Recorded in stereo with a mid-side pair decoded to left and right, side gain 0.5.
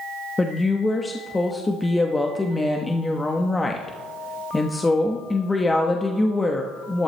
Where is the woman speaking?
15° left, 1.2 m.